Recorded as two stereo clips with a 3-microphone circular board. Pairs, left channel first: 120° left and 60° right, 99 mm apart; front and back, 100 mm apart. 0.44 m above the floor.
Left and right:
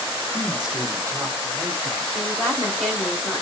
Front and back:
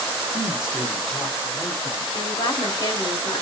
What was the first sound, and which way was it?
A man speaking, 175° right.